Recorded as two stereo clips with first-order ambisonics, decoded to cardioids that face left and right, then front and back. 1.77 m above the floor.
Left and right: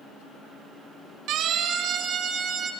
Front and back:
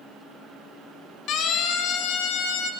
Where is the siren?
45° right, 3 m; by 2.7 s 20° right, 4.5 m.